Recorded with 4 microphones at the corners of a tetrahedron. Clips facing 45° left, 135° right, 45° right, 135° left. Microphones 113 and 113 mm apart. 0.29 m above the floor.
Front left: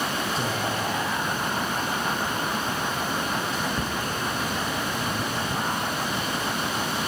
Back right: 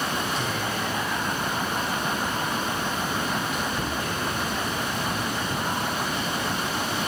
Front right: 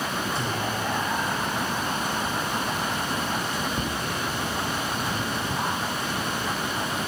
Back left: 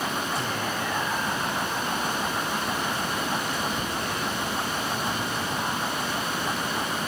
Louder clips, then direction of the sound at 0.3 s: Front left 1 dB, front right 1 dB; 10° left.